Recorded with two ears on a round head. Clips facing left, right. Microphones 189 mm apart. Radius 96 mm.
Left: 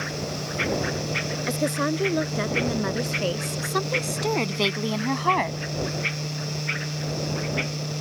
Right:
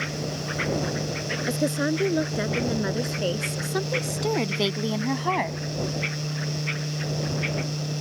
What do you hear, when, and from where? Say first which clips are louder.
1.5 s a woman speaking: right 1 dB; 10° right (ahead or behind); by 5.6 s centre (ahead or behind)